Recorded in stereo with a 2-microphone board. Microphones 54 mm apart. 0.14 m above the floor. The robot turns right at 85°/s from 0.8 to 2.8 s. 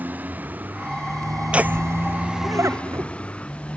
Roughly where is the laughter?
Right.